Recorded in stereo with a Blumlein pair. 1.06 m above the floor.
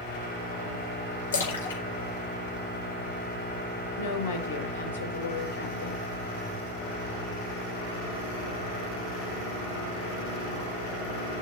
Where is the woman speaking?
65° left, 4.5 m.